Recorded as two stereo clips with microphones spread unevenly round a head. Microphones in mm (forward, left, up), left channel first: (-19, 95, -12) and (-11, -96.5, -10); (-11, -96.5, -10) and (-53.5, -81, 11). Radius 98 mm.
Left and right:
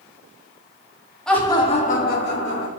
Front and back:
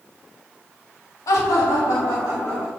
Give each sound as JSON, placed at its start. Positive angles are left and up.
{"t": 1.3, "sound": "laughter", "azimuth_deg": 5, "distance_m": 1.7}